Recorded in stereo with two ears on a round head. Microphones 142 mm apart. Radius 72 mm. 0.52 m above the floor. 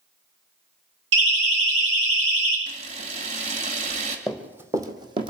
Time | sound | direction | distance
1.1 | a siren | 85° right | 9.5 m
2.7 | a camera shutter | 45° right (ahead or behind) | 2 m
4.3 | running footsteps | 5° right (ahead or behind) | 1.3 m